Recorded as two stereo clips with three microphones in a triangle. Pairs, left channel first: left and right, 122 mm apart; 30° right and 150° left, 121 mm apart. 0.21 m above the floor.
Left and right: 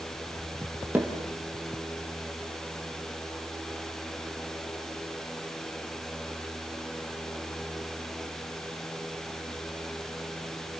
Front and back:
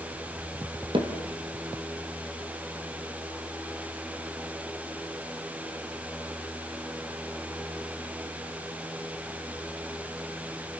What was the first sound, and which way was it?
Hammering, 165° right.